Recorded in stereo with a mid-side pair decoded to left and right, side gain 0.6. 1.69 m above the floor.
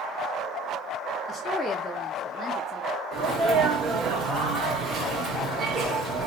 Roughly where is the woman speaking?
Ahead.